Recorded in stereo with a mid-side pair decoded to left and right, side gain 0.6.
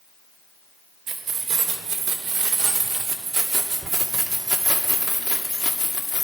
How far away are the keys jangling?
About 2.5 m.